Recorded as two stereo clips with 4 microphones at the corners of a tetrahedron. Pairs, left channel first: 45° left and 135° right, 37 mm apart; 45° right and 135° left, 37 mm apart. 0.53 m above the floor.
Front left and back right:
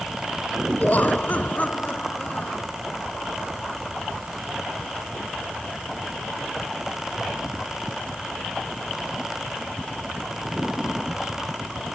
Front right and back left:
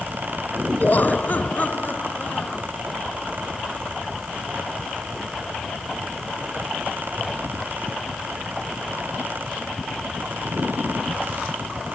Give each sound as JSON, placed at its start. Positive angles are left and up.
{"t": 0.8, "sound": "laughter", "azimuth_deg": -5}